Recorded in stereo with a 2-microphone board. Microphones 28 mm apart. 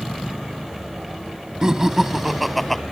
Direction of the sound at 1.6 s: 25° right (ahead or behind).